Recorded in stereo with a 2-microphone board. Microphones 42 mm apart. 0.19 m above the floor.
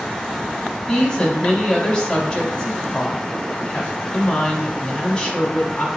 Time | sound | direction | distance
0.9 | a woman speaking | 20° left (ahead or behind) | 1.1 m